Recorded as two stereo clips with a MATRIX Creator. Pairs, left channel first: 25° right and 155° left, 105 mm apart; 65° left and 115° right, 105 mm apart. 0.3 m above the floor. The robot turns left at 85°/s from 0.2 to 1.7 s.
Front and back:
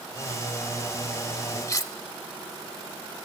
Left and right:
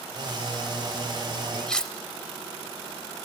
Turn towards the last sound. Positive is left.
turn(degrees=-10)